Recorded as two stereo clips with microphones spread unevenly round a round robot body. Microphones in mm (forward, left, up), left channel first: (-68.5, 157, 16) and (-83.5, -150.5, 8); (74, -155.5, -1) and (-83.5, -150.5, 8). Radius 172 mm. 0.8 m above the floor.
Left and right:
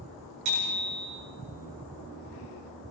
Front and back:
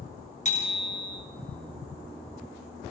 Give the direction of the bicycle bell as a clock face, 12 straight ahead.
2 o'clock.